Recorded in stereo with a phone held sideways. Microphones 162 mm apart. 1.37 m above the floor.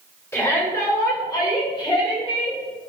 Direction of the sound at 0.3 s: 20° left (ahead or behind).